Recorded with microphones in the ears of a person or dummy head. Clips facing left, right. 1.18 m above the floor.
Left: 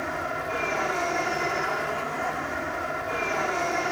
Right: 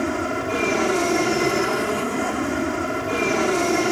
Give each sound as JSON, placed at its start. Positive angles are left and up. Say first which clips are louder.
{"t": 0.0, "sound": "an aircraft", "louder": "right 8 dB", "side_deg": -45}